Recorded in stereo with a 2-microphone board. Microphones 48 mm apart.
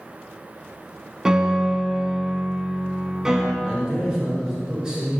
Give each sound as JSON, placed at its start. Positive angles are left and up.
{"t": 1.2, "sound": "a piano", "side_deg": -10, "distance_m": 0.7}
{"t": 3.6, "sound": "a man speaking", "side_deg": -15, "distance_m": 2.0}